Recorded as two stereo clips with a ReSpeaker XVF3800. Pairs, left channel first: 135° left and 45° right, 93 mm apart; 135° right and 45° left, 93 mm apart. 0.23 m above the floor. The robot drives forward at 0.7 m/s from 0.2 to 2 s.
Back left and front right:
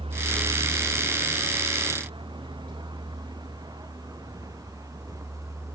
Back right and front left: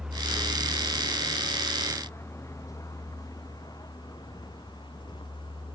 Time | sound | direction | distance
0.0 | a vehicle | 40° right | ?